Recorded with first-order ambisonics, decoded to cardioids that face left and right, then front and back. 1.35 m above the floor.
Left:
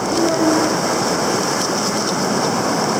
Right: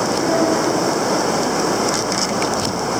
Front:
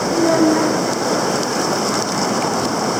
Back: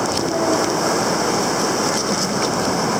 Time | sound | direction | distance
0.1 | a child speaking | 15° left | 1.3 m